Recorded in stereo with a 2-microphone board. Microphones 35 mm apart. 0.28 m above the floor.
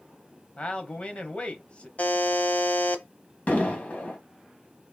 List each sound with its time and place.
0.6 s a man speaking: 35° left (ahead or behind), 1.1 m
2.0 s a buzzer: 50° left (ahead or behind), 0.7 m
3.5 s an explosion: 45° left (ahead or behind), 1.6 m